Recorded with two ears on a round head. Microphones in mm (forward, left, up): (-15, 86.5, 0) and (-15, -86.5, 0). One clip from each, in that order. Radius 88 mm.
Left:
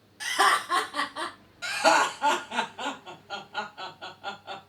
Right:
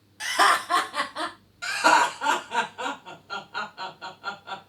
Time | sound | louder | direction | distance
0.2 | laughter | right 2 dB | 25° right (ahead or behind) | 1.2 m
1.6 | laughter | right 2 dB | 10° right (ahead or behind) | 1.6 m